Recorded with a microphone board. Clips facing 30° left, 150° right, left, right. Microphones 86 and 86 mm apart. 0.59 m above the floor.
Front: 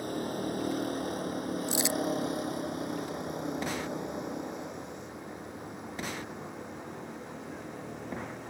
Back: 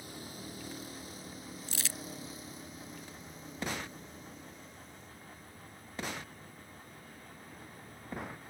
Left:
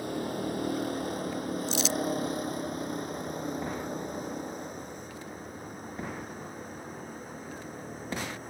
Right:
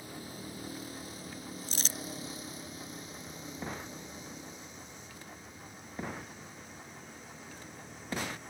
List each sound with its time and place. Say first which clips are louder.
0.0 s a vehicle: front 13 dB, left 12 dB; 65° left; by 8.5 s 45° left
1.7 s crumpling: front 12 dB, left 12 dB; 40° right